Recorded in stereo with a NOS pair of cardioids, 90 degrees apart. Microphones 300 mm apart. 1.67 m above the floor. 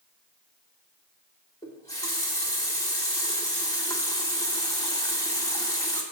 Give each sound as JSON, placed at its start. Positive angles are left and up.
{"t": 1.6, "sound": "a running tap", "azimuth_deg": 15, "distance_m": 2.0}